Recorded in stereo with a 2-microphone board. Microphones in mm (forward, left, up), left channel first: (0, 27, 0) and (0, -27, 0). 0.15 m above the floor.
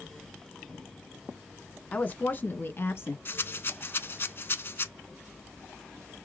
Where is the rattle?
45° left (ahead or behind), 0.5 m.